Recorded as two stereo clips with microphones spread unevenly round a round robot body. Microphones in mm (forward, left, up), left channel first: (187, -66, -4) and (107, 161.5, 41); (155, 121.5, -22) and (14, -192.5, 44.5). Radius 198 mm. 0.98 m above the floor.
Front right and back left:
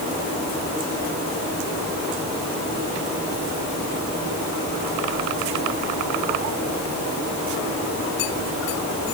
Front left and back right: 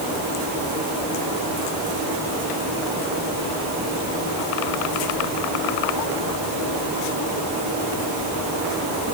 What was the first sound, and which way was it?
Only background noise.